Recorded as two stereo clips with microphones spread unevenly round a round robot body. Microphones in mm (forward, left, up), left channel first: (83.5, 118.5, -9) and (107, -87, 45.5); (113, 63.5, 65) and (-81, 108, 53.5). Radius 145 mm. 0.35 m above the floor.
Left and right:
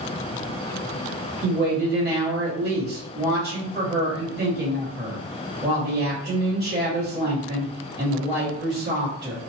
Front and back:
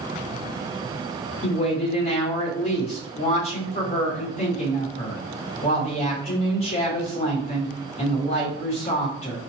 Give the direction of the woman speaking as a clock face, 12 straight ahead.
1 o'clock.